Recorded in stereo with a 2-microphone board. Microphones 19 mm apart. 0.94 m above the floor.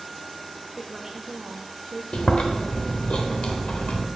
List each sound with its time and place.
0.8 s a woman speaking: 5° right (ahead or behind), 0.8 m; by 2.0 s 55° right (ahead or behind), 1.3 m
2.1 s chewing: 70° left (ahead or behind), 1.3 m